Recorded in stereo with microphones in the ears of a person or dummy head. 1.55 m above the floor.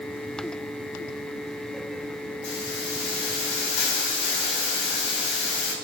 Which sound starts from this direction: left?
A hiss, at 2.4 s.